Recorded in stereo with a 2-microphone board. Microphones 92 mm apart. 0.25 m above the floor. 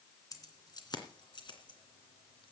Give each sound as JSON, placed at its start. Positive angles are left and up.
{"t": 0.3, "sound": "keys jangling", "side_deg": 40, "distance_m": 2.5}